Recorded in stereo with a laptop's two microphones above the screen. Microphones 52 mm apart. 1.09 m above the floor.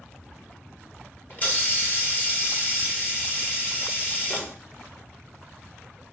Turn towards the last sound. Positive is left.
turn(degrees=30)  # may be behind; listen again after turning